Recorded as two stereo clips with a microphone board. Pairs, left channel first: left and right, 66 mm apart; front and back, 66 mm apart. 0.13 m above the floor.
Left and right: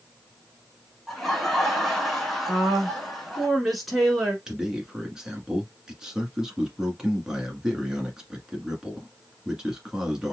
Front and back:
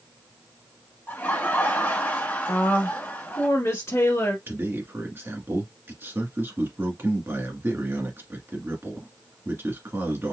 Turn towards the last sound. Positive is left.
turn(degrees=-165)